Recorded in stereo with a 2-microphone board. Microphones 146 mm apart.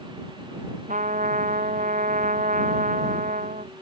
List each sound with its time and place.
0.9 s a trumpet: 60° right (ahead or behind)